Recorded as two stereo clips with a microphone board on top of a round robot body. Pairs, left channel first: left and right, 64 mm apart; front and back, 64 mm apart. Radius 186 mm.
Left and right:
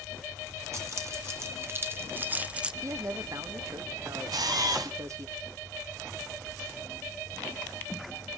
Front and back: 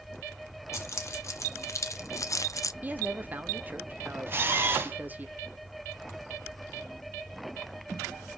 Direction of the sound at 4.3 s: 120° right.